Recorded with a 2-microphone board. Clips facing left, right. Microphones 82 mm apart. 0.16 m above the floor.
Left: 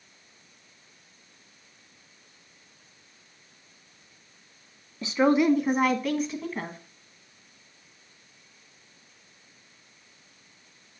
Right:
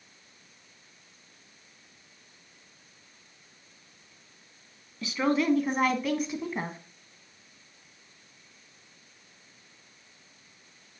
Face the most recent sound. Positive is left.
turn(degrees=-25)  # may be behind; listen again after turning